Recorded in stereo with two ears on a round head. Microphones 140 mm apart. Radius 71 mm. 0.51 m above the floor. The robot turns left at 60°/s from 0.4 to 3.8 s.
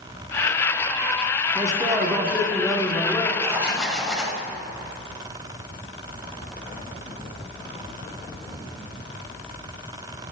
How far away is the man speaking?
About 0.9 m.